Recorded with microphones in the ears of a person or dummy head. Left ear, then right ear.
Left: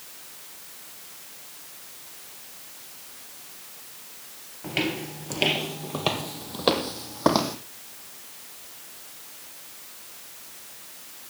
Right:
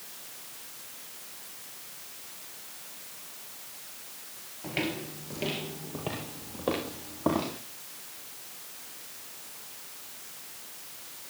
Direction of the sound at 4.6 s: 10° left (ahead or behind).